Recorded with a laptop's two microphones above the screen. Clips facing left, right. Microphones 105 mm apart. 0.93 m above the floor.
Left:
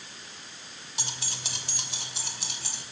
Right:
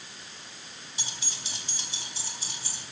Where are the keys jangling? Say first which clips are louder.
Left 4 dB; 70° left (ahead or behind), 1.9 m; by 2.8 s 90° left, 3 m.